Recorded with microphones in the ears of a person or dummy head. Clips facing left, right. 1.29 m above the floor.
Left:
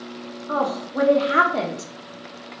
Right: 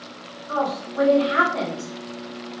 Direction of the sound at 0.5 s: 45° left (ahead or behind).